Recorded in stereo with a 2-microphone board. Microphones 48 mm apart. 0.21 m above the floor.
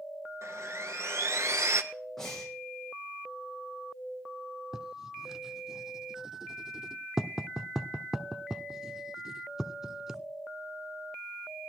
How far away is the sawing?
About 1.0 m.